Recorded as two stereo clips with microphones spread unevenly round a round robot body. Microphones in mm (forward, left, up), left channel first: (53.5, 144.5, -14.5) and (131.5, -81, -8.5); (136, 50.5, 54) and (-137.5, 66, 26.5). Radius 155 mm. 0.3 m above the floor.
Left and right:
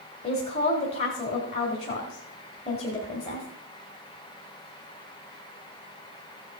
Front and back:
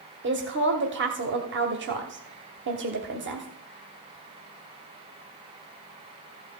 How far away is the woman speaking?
About 1.2 m.